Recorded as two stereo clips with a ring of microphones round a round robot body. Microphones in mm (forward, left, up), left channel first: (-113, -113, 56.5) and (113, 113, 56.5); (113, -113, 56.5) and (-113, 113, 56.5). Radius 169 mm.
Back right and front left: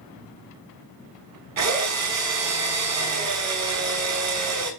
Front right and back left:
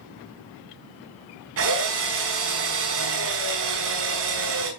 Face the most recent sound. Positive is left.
turn(degrees=85)